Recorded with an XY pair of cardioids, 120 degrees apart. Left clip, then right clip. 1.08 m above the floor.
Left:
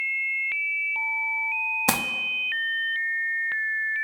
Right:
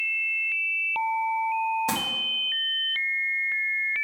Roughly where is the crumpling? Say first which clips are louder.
Left 4 dB; ahead left.